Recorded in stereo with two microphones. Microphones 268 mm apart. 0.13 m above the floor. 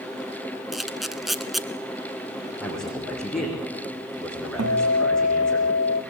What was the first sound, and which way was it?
A camera shutter, centre (ahead or behind).